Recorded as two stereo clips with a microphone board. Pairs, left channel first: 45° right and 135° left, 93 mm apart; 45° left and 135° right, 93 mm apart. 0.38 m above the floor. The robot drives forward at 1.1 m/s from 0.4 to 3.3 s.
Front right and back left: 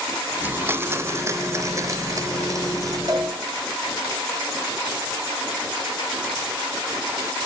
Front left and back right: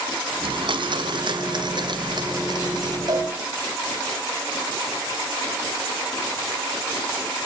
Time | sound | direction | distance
0.4 | a blender | 155° right | 1.1 m
3.1 | a cowbell | 175° right | 8 m